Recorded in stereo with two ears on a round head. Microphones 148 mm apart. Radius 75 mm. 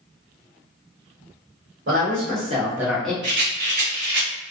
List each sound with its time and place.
1.9 s a woman speaking: 55° right (ahead or behind), 1.1 m; by 3.1 s 10° left (ahead or behind), 0.9 m
3.2 s a rattle: 65° right (ahead or behind), 1.2 m